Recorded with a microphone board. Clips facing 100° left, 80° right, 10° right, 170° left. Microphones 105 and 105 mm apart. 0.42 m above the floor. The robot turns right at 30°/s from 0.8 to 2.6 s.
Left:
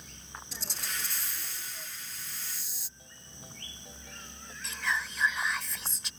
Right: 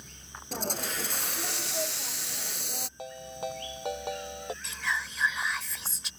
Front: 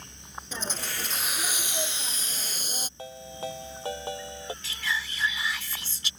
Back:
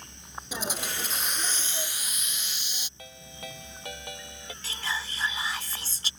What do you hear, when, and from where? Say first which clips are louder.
0.5 s a hiss: right 10 dB, back 2 dB; 110° right; by 2.9 s 60° right
3.0 s a ringtone: right 19 dB, front 8 dB; 70° right
4.6 s whispering: left 4 dB, back 1 dB; 165° right